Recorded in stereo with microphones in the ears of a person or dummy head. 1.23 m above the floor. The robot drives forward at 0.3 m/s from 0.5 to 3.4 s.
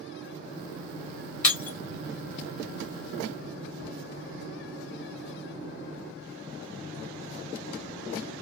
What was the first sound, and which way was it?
Breaking glass, 5° left (ahead or behind).